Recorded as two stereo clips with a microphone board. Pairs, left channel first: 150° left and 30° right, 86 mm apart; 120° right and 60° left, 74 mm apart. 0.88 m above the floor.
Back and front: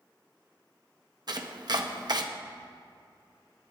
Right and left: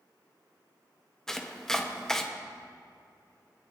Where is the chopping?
40° right, 1.0 m.